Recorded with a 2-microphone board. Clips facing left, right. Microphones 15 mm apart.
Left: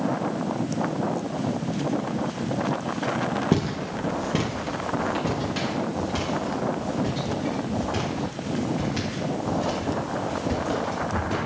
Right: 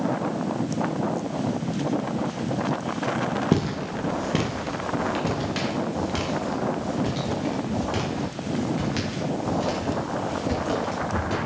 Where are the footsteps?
10° right (ahead or behind), 1.1 m; by 11.3 s 35° right (ahead or behind), 6 m.